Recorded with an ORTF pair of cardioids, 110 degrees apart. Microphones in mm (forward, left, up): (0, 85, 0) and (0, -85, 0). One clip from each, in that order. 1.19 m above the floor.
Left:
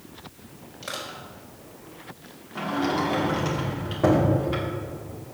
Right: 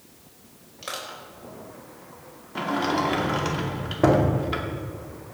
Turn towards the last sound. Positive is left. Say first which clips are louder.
# right 1 dB
turn(degrees=-30)